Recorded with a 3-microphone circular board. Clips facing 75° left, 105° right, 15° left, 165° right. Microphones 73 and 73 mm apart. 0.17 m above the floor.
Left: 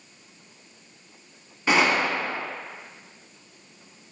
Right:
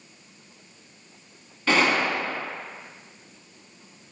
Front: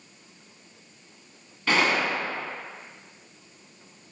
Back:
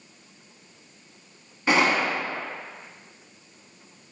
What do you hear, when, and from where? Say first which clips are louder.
1.7 s a gunshot: even, back 2 dB; 135° left, 0.6 m